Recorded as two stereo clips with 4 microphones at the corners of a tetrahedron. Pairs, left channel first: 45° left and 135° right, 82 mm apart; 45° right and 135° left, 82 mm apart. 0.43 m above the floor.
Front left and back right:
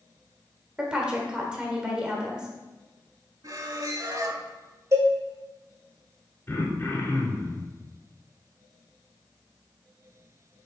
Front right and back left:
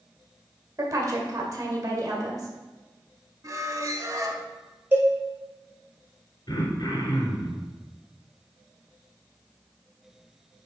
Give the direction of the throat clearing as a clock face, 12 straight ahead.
1 o'clock.